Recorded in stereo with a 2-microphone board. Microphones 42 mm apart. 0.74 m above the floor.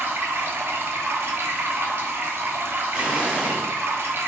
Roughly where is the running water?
Right.